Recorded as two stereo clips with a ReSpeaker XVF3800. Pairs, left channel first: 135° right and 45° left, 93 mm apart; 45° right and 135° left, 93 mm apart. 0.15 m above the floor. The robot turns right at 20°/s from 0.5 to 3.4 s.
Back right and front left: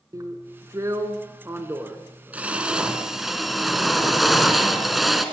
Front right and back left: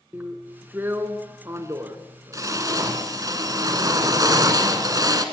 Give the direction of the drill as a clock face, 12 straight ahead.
10 o'clock.